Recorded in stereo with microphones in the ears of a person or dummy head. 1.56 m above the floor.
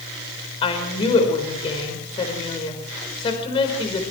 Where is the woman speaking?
35° left (ahead or behind), 5 m.